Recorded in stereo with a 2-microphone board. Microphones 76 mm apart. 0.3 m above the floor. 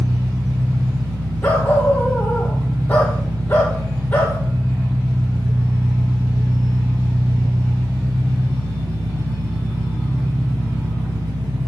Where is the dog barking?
20° left (ahead or behind), 3 m.